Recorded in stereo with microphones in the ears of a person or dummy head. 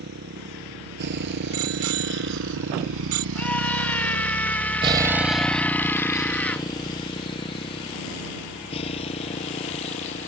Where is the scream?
10° left (ahead or behind).